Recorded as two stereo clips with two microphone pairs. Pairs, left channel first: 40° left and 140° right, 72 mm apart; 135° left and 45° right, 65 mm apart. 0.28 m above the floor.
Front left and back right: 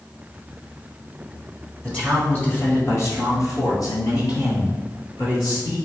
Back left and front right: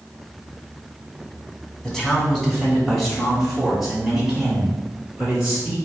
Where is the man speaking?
80° left, 1.4 m; by 5.8 s 30° left, 3.5 m.